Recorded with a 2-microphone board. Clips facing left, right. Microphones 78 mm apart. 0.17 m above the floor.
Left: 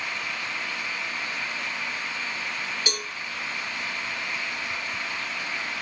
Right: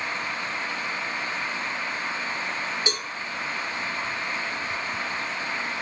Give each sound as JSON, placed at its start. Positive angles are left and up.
{"t": 2.9, "sound": "a cowbell", "side_deg": -25, "distance_m": 1.4}